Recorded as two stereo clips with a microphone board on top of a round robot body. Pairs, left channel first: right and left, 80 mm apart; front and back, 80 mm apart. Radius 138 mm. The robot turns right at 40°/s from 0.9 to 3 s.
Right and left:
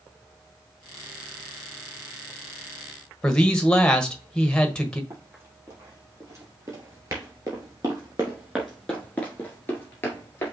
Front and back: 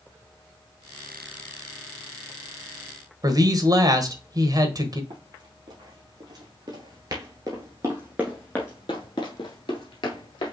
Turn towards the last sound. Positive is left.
turn(degrees=-30)